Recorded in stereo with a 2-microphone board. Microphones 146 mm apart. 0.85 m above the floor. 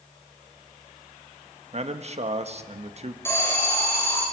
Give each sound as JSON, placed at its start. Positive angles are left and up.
{"t": 1.7, "sound": "a man speaking", "side_deg": -45, "distance_m": 1.3}
{"t": 3.2, "sound": "an alarm", "side_deg": 15, "distance_m": 6.5}